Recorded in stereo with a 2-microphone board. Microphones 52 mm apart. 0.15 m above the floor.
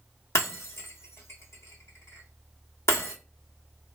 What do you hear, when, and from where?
0.3 s breaking glass: 55° left (ahead or behind), 0.8 m